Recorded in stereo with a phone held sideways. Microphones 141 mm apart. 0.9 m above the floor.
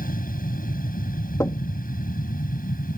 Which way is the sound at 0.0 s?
75° left (ahead or behind).